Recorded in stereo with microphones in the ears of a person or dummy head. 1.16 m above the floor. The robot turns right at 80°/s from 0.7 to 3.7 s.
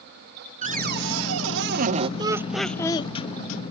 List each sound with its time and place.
0.6 s a cupboard door: 140° right, 1.0 m; by 2.1 s 25° right, 1.0 m
2.2 s laughter: 30° right, 0.6 m; by 3.1 s 45° left, 0.6 m